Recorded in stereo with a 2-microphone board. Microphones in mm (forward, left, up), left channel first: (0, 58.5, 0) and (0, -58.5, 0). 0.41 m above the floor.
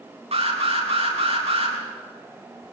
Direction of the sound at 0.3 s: 70° right (ahead or behind).